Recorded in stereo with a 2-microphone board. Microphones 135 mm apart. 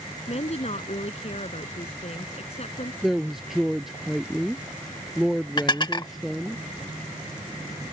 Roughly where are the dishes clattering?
Left.